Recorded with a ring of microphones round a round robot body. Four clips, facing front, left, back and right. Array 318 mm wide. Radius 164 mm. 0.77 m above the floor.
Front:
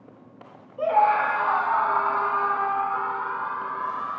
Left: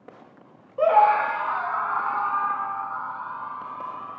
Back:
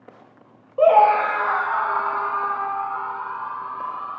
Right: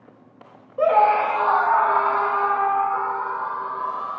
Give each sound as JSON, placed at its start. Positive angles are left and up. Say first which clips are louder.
{"t": 0.8, "sound": "a scream", "louder": "right 1 dB, back 6 dB", "azimuth_deg": -155}